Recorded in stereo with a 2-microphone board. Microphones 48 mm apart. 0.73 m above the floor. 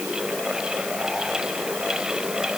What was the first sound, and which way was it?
Only background noise.